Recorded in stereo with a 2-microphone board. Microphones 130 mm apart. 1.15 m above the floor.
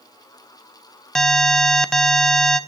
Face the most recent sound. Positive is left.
turn(degrees=5)  # may be behind; listen again after turning